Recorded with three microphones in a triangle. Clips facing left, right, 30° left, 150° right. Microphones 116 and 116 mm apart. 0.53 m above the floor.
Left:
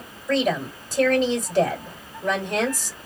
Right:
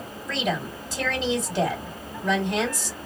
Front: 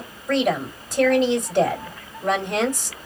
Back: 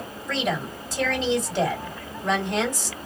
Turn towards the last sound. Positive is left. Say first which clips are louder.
# left 6 dB, front 6 dB
turn(degrees=55)